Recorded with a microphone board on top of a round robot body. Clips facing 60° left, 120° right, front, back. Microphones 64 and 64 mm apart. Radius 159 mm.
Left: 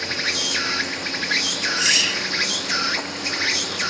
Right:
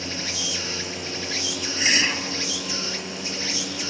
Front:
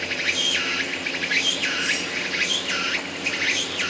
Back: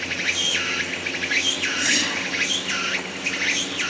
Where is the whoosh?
175° left.